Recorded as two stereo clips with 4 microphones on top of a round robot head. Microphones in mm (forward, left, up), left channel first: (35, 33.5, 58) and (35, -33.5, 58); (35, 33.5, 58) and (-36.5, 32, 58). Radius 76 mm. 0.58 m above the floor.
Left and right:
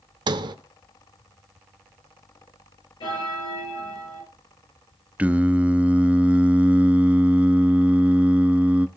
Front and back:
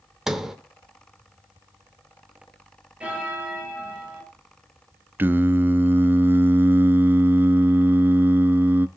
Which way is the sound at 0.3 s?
90° right.